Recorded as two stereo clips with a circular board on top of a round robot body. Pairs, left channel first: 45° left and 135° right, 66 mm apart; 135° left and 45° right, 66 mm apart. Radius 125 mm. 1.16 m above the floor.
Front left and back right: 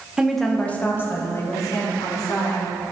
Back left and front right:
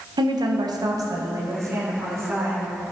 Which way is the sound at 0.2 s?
55° right.